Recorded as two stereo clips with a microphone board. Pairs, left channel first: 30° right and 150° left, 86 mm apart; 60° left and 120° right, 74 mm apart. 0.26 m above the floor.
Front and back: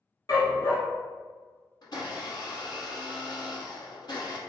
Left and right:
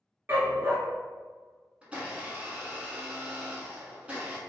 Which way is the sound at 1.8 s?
50° right.